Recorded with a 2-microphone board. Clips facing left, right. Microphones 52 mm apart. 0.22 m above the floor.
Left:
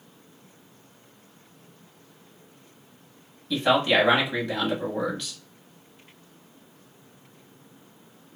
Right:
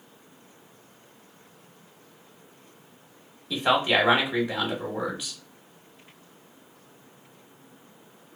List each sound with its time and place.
3.5 s a man speaking: 10° right (ahead or behind), 1.0 m